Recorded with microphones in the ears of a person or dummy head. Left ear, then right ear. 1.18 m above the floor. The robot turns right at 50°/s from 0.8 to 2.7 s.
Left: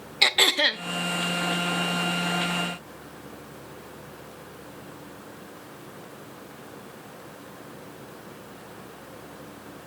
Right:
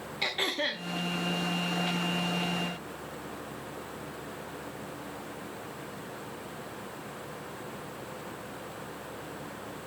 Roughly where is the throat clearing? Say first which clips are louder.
Left 10 dB; left.